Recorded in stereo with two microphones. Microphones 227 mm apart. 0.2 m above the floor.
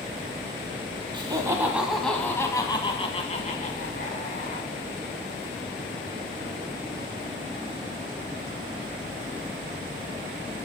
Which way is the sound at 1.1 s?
20° right (ahead or behind).